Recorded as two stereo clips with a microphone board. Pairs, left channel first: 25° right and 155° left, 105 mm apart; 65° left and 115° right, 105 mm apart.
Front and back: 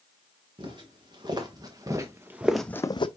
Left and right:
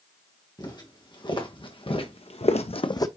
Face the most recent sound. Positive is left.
turn(degrees=10)